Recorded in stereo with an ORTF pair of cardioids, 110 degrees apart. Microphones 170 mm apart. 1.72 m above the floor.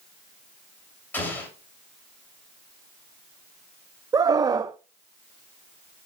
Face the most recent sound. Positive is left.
turn(degrees=-20)